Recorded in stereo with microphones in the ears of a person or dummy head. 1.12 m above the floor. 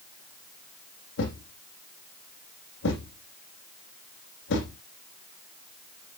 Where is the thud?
70° left (ahead or behind), 2.5 m.